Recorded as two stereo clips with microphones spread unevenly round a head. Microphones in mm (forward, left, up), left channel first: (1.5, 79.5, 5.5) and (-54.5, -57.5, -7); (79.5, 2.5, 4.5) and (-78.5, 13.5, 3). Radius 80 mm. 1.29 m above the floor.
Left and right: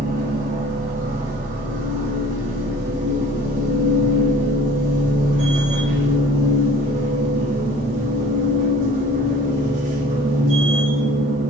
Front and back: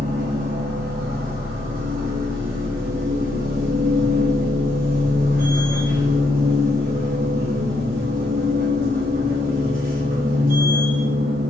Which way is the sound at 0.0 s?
150° right.